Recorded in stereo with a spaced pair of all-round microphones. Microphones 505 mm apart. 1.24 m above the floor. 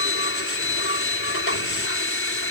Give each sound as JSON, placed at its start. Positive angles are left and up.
{"t": 0.0, "sound": "a machine running", "side_deg": 25}